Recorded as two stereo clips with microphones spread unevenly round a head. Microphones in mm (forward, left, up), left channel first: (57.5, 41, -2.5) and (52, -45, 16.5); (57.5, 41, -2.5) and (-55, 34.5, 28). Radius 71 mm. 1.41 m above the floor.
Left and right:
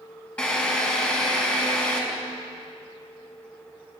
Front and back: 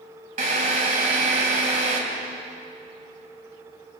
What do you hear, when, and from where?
0.4 s a drill: 170° left, 4.5 m